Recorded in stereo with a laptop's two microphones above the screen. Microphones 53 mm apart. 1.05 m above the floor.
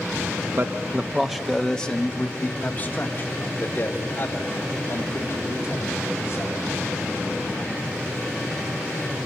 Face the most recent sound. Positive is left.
turn(degrees=50)  # may be behind; listen again after turning